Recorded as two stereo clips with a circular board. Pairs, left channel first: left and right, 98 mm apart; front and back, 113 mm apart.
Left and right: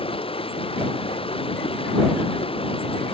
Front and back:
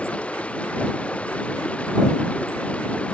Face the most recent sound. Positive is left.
turn(degrees=80)